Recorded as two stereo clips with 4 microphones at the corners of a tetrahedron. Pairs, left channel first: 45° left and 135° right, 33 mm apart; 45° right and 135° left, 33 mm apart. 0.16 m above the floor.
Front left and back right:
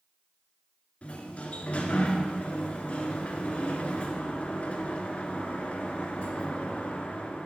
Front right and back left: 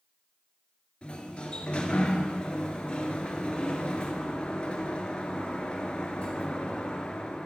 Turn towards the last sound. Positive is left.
turn(degrees=10)